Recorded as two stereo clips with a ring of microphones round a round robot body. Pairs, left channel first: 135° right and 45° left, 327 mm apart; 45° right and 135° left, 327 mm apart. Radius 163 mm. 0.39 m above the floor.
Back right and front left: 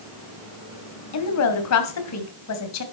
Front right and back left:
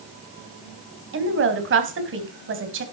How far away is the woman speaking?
About 3 m.